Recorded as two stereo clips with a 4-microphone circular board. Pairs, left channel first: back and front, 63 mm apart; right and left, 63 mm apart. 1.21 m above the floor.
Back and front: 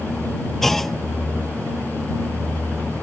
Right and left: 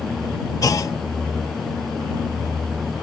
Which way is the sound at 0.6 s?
95° right.